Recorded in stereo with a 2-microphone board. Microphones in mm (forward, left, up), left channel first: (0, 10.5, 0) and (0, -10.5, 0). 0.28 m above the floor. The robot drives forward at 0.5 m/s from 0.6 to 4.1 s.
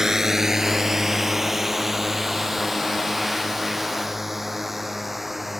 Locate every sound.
0.0 s a drone: 20° right (ahead or behind); by 5.6 s 5° right (ahead or behind)